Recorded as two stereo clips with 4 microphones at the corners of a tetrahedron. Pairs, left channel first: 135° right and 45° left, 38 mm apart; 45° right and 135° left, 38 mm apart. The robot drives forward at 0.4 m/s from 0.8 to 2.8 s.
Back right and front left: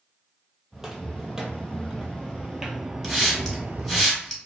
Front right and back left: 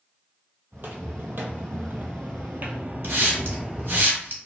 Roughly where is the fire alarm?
I don't hear a fire alarm.